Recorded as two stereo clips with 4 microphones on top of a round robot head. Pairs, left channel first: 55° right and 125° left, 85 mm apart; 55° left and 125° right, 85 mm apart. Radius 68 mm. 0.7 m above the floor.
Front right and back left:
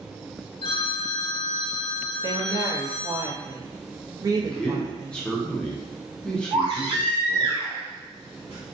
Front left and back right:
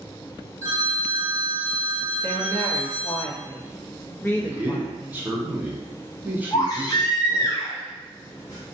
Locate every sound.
0.6 s a phone ringing: 65° right, 0.7 m
2.2 s a woman speaking: 110° left, 0.7 m
4.3 s a man speaking: 115° right, 0.8 m
6.5 s a baby crying: 105° left, 1.0 m